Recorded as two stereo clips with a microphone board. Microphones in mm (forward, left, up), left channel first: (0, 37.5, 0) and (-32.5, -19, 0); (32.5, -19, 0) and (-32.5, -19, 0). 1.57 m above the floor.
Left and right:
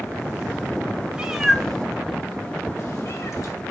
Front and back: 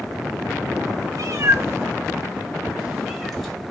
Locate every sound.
1.1 s a cat meowing: 175° left, 1.2 m; by 3.5 s 85° left, 2.5 m